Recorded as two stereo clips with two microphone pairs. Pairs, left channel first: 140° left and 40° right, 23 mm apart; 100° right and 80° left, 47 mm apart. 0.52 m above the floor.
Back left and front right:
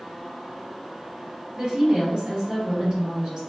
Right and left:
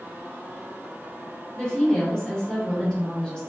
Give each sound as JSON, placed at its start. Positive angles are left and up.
{"t": 1.6, "sound": "a woman speaking", "azimuth_deg": -55, "distance_m": 1.3}